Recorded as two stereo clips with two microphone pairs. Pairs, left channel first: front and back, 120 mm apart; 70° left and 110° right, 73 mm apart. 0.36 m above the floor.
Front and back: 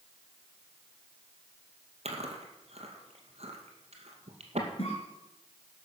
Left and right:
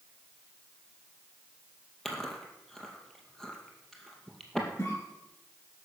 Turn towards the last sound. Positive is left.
turn(degrees=25)